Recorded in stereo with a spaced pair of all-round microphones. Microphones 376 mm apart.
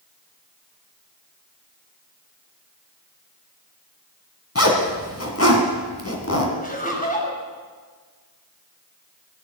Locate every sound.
4.5 s a zipper: 40° left (ahead or behind), 2 m
6.6 s laughter: 20° left (ahead or behind), 4.5 m